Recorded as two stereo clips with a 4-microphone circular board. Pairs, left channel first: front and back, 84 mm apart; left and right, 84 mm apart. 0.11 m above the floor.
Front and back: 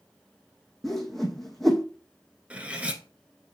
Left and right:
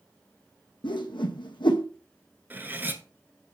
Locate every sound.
0.8 s a whoosh: 85° left, 1.1 m
2.5 s cutlery clinking: 125° right, 0.9 m